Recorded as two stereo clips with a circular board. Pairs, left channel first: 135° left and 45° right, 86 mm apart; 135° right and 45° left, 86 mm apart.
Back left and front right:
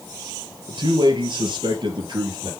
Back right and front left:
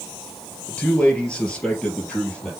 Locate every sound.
0.7 s a man speaking: 60° right, 3 m; by 2.5 s 55° right, 4 m